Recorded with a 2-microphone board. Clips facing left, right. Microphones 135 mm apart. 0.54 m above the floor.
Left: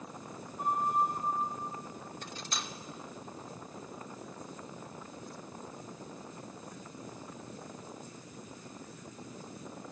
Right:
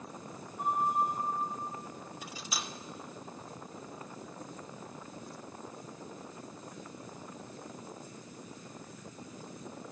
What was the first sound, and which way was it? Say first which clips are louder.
A flute: even; 5° right (ahead or behind).